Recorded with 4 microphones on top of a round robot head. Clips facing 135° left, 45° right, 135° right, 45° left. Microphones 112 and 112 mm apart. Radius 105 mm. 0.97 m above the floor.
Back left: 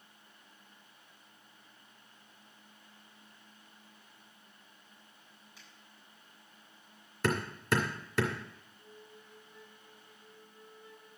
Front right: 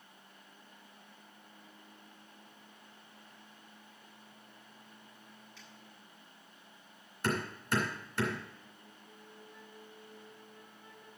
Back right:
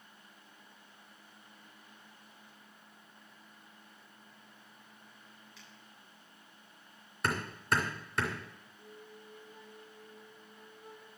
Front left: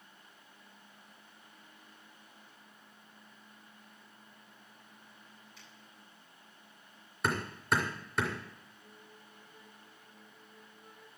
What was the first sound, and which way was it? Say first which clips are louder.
A finger snap: front right 3 dB, even; 145° right.